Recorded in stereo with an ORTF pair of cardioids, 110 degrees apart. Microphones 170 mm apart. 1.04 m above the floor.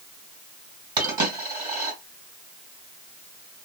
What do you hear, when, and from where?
1.0 s a dropped coin: 25° right, 2 m